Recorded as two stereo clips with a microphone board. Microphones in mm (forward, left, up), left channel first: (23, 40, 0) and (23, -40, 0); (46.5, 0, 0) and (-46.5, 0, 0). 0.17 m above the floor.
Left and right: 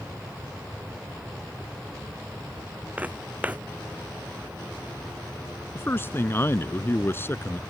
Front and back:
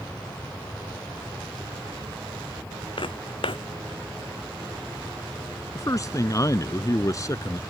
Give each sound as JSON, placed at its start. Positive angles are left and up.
{"t": 3.0, "sound": "footsteps", "azimuth_deg": -20}
{"t": 5.8, "sound": "a man speaking", "azimuth_deg": 40}